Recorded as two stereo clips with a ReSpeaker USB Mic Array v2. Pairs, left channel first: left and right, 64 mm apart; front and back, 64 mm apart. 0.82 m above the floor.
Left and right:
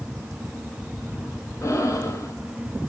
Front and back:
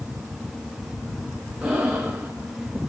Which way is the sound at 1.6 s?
110° left.